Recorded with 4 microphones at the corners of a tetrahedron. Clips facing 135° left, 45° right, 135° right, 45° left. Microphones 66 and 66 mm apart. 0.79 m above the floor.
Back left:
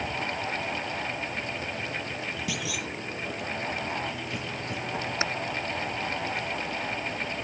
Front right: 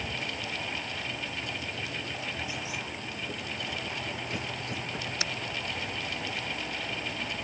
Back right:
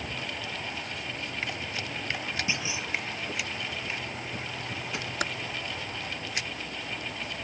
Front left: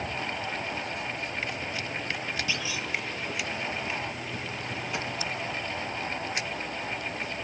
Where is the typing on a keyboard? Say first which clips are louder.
Back left 6 dB, back right 2 dB; 165° right.